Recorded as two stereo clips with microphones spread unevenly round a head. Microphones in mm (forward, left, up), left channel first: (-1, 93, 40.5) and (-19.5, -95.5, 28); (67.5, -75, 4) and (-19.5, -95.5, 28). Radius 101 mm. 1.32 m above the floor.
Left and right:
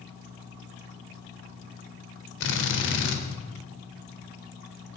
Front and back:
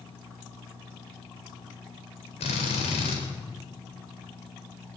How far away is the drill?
About 4 m.